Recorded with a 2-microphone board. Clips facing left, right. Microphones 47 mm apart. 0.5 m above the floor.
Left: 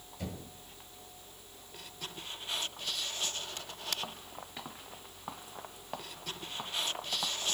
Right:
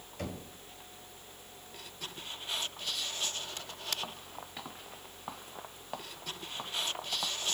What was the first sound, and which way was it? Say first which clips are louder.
Knocking: right 2 dB; 70° right (ahead or behind).